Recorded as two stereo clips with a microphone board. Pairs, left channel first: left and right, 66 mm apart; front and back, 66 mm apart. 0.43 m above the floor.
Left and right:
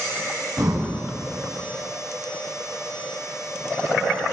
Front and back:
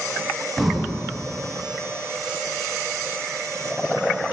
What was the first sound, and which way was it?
Breathing, 85° right.